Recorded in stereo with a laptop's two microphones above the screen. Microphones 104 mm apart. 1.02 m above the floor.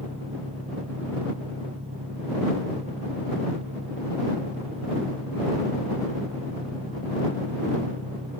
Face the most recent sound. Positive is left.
turn(degrees=-80)